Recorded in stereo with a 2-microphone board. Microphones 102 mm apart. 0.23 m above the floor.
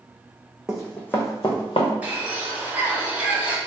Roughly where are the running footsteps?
Centre.